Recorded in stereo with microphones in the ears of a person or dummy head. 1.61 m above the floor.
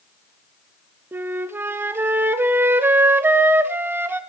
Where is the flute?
20° right (ahead or behind), 0.6 m.